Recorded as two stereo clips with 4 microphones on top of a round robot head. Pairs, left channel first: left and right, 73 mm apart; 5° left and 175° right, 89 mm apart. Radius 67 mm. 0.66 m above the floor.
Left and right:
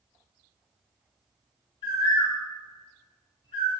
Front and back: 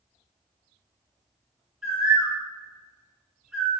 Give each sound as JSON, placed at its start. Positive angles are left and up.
{"t": 1.8, "sound": "a bird", "azimuth_deg": 100, "distance_m": 2.0}